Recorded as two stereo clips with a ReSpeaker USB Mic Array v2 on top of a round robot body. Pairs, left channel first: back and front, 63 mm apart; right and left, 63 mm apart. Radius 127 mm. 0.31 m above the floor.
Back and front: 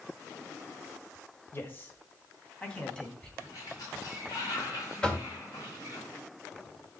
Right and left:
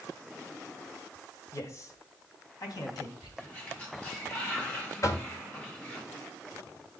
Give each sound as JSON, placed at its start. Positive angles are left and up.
{"t": 1.5, "sound": "a man speaking", "azimuth_deg": -130, "distance_m": 2.5}
{"t": 3.4, "sound": "a sliding door", "azimuth_deg": -155, "distance_m": 5.0}
{"t": 5.0, "sound": "knocking", "azimuth_deg": -105, "distance_m": 1.8}